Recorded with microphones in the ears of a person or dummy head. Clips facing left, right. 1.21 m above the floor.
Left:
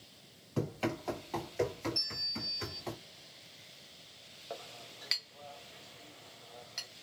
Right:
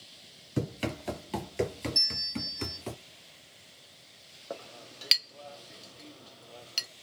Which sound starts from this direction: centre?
Running footsteps, at 0.6 s.